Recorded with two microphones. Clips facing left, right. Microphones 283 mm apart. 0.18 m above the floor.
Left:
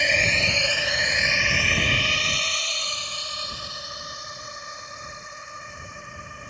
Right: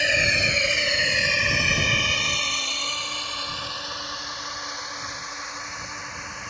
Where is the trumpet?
No trumpet in this recording.